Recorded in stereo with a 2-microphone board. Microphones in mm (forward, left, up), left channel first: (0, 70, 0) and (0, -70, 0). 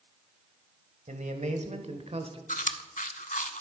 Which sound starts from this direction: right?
A man speaking, at 1.1 s.